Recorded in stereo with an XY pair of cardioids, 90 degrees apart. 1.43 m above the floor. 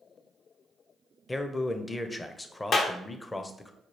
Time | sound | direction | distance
1.3 | a man speaking | 20° left | 0.6 m
2.7 | a clap | 60° left | 0.7 m